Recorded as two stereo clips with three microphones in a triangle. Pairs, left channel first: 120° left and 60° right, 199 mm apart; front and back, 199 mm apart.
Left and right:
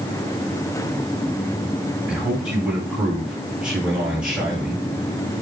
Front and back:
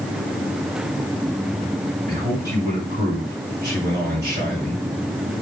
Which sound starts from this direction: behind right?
A man speaking, at 2.1 s.